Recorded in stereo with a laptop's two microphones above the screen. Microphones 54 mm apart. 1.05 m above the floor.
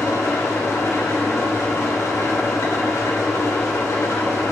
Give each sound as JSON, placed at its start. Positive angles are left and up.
{"t": 0.0, "sound": "an engine running", "side_deg": 80, "distance_m": 2.0}